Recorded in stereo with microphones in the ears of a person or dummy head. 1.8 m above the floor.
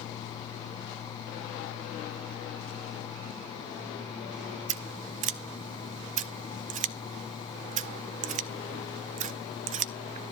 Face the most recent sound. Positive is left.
turn(degrees=-45)  # may be behind; listen again after turning